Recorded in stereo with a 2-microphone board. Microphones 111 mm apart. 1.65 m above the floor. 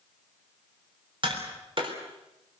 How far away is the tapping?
About 4 m.